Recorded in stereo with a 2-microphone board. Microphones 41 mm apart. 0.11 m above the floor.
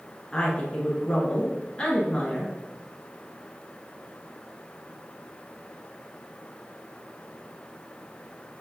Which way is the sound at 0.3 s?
20° left (ahead or behind).